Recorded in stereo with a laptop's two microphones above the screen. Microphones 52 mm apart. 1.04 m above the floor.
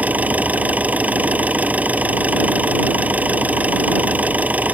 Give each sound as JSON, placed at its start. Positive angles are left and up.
{"t": 0.0, "sound": "an engine running", "side_deg": -30}